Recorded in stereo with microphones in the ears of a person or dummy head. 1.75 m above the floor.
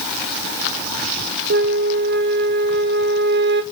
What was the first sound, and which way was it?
A flute, 60° right (ahead or behind).